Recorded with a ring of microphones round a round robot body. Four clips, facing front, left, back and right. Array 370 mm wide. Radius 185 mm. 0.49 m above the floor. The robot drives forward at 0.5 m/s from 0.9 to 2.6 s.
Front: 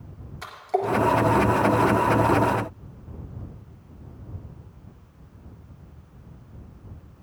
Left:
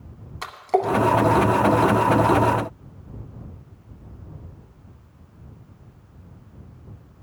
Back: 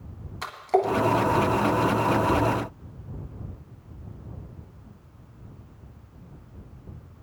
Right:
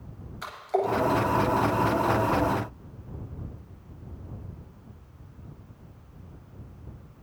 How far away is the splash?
About 1.8 m.